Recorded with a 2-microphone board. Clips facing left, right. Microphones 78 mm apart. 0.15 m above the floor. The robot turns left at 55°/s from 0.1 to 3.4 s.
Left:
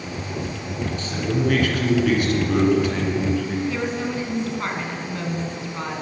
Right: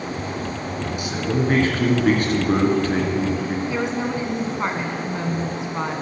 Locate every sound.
1.0 s a man speaking: 15° right, 1.5 m; by 3.6 s 150° right, 1.5 m
3.7 s a woman speaking: 25° right (ahead or behind), 1.1 m